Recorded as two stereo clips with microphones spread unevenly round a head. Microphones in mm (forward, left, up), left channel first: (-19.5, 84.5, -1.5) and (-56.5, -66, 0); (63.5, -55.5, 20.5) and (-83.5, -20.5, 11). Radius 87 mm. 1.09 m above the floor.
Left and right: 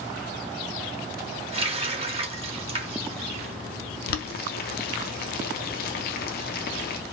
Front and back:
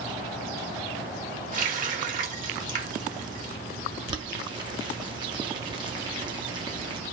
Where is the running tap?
155° right, 0.9 m.